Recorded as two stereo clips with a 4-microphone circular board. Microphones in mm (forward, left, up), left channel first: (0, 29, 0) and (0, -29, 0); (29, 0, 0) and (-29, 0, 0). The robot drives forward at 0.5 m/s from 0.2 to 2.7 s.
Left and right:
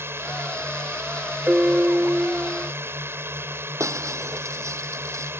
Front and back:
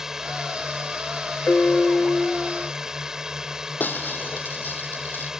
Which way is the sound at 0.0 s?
100° right.